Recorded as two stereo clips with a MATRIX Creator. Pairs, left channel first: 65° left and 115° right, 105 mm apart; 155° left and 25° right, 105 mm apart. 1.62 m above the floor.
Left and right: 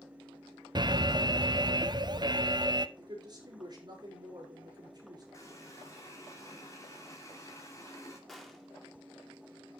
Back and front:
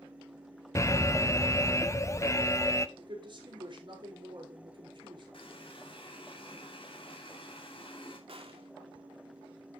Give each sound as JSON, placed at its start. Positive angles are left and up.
{"t": 0.8, "sound": "an alarm", "azimuth_deg": -150, "distance_m": 0.6}
{"t": 3.0, "sound": "a woman speaking", "azimuth_deg": -65, "distance_m": 4.5}
{"t": 5.3, "sound": "a running tap", "azimuth_deg": 125, "distance_m": 2.5}
{"t": 8.3, "sound": "a gunshot", "azimuth_deg": -20, "distance_m": 1.9}